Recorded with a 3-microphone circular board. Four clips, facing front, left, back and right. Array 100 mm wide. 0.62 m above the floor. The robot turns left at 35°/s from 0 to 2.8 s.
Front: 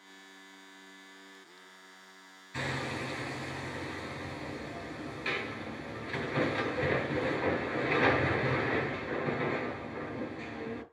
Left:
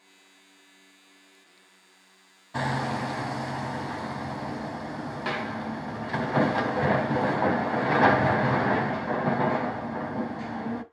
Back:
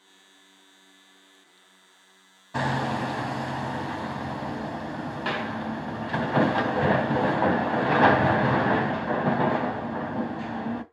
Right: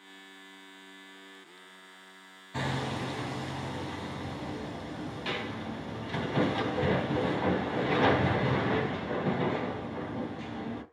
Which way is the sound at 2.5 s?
160° left.